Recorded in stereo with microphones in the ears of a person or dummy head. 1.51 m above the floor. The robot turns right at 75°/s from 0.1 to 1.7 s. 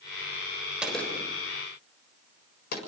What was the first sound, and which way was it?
A gunshot, 10° right (ahead or behind).